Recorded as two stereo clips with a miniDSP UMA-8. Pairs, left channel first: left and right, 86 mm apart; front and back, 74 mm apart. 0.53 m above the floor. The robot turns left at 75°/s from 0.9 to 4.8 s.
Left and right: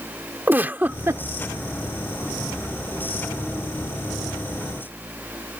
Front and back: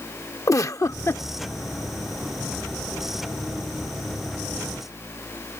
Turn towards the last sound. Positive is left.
turn(degrees=40)